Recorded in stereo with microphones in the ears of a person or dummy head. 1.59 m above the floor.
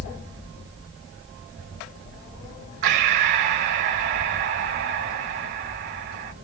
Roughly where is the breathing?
Right.